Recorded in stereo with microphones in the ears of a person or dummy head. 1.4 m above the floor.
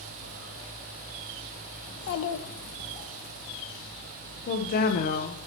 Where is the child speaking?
55° left (ahead or behind), 0.9 m; by 3.1 s 40° left (ahead or behind), 1.0 m.